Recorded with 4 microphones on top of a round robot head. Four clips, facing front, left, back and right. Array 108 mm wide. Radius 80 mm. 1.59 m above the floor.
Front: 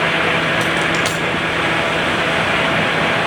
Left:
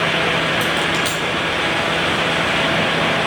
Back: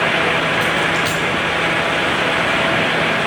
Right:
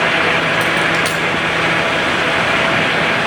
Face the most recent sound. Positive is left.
turn(degrees=-10)